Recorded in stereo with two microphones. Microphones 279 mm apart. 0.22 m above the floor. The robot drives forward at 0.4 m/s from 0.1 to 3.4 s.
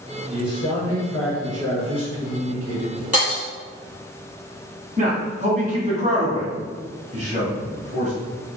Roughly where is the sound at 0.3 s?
Right.